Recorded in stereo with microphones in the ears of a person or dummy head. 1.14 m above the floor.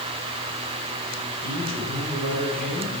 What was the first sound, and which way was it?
A man speaking, 25° right (ahead or behind).